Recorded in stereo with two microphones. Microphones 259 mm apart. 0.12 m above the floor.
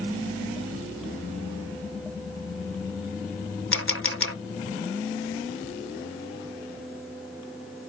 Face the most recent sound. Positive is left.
turn(degrees=55)  # may be behind; listen again after turning